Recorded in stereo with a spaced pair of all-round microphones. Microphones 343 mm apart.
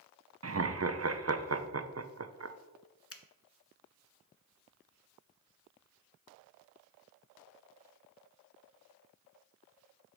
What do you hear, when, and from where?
0.4 s laughter: 45° right (ahead or behind), 0.5 m
3.1 s a finger snap: 40° left (ahead or behind), 0.6 m